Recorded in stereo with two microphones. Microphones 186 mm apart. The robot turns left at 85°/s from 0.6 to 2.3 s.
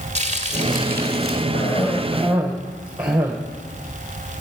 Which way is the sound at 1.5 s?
55° left.